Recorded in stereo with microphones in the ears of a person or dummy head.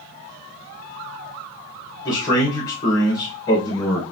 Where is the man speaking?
25° left (ahead or behind), 2.0 m.